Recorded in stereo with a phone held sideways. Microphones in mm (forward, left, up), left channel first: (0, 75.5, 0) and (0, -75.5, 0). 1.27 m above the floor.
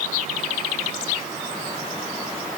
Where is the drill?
No drill in this recording.